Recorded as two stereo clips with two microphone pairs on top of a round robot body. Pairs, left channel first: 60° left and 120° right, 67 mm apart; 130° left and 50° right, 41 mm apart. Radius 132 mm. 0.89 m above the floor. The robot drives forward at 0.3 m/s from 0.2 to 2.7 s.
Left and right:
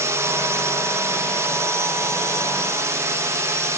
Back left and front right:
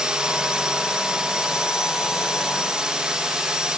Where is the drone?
105° right.